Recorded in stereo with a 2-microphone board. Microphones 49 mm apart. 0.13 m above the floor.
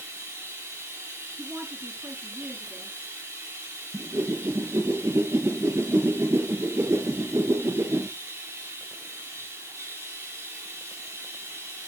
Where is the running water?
50° right (ahead or behind), 2 m.